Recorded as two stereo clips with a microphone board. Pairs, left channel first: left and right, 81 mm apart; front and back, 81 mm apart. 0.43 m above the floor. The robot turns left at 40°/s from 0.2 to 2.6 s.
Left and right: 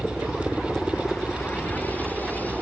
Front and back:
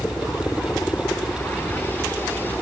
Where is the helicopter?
10° left; by 2.6 s 65° right.